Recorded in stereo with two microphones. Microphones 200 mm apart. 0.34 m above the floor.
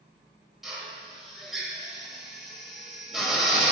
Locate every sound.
0.6 s a drill: centre (ahead or behind), 1.9 m